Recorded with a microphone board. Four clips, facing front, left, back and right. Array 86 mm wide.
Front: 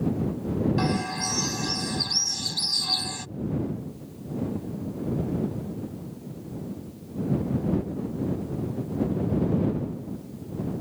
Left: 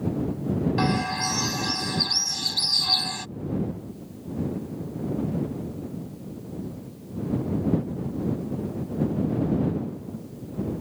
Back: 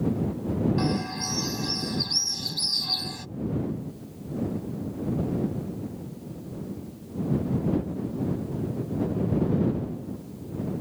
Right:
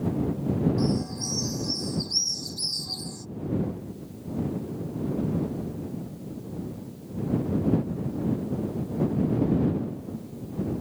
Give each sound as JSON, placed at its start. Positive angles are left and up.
{"t": 0.8, "sound": "a bird", "azimuth_deg": 75}